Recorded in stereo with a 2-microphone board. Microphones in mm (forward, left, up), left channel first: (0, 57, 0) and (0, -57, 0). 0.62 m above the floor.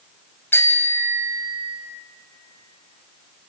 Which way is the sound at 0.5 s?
20° left (ahead or behind).